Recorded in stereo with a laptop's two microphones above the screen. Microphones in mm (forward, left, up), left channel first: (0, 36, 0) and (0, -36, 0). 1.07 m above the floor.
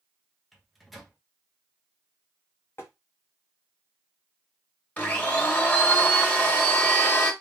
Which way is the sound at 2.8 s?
35° left (ahead or behind).